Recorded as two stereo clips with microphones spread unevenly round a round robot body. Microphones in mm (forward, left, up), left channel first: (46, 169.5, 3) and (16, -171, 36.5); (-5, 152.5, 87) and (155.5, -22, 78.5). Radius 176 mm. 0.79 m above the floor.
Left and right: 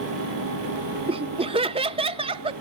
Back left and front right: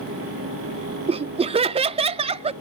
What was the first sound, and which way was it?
Laughter, 30° right.